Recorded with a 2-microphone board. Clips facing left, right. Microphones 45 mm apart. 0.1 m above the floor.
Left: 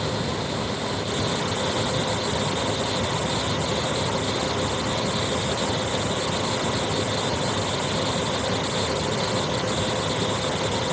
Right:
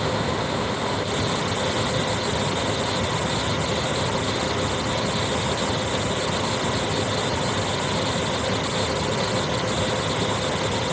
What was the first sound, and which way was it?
Only background noise.